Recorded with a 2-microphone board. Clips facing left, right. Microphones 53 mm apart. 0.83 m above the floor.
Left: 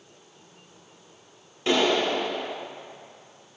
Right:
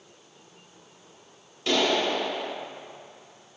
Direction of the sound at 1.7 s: 30° left (ahead or behind).